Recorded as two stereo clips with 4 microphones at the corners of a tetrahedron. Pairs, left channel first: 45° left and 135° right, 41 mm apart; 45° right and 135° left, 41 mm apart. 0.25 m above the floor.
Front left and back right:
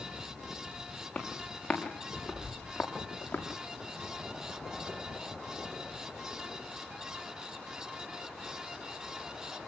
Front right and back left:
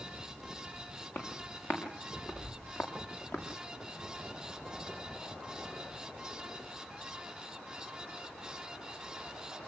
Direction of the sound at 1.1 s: 30° right.